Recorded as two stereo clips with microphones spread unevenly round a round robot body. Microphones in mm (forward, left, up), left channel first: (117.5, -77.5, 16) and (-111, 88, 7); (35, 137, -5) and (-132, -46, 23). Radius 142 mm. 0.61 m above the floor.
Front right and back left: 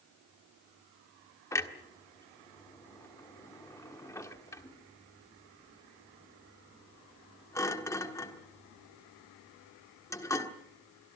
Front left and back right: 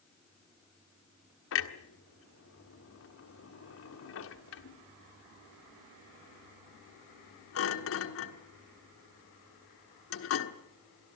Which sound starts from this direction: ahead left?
A clunk, at 1.5 s.